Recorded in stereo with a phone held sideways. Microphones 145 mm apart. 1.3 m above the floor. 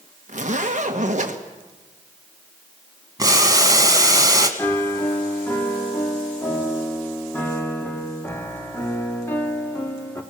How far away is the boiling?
About 1.8 m.